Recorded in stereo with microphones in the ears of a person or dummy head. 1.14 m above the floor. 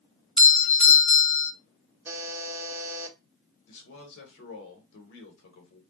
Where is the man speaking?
75° left (ahead or behind), 1.1 m.